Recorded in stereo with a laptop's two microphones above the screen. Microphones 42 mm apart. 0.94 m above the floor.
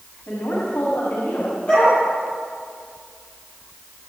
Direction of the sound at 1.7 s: 30° left (ahead or behind).